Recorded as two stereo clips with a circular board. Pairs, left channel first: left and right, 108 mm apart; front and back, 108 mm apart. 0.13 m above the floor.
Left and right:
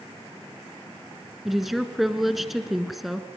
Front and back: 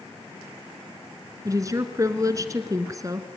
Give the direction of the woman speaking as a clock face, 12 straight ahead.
6 o'clock.